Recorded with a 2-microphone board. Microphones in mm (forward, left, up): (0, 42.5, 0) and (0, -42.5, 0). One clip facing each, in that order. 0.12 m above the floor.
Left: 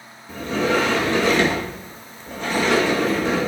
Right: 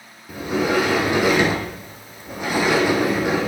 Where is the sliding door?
10° right (ahead or behind), 1.3 m.